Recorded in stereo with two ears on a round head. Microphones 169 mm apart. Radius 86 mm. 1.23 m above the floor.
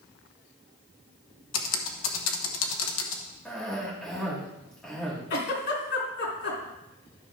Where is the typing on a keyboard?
75° left (ahead or behind), 1.3 m.